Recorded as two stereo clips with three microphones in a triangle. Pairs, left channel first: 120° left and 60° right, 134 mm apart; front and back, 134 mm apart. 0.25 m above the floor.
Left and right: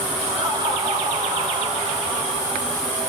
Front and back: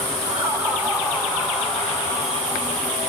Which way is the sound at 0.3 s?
115° right.